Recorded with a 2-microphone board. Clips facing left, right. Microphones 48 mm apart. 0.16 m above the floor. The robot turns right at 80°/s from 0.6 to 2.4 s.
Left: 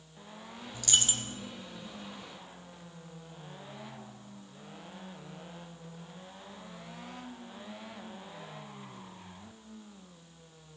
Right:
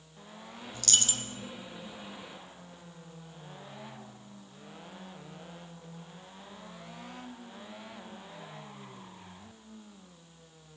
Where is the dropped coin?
5° left, 0.9 m; by 1.4 s 55° left, 0.9 m.